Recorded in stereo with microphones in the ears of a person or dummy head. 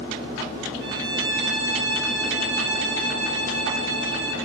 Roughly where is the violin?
Right.